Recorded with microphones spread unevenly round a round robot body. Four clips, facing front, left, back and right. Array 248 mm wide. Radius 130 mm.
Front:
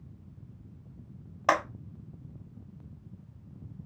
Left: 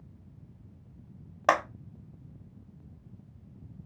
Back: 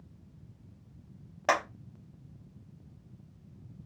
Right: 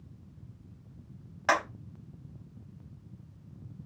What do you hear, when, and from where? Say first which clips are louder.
1.5 s a clap: left 3 dB, front 2 dB; 85° left, 1.2 m